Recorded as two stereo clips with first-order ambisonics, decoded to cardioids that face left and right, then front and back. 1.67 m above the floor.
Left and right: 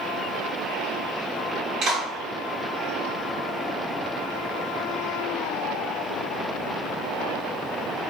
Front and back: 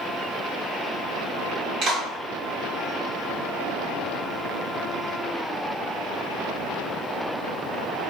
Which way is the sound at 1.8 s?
145° right.